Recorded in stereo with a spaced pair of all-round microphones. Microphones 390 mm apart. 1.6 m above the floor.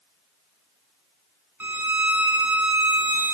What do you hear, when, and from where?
1.6 s a violin: 50° right (ahead or behind), 1.5 m